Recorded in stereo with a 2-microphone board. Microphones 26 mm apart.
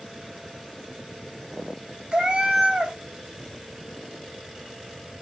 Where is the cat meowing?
40° right (ahead or behind), 0.6 m.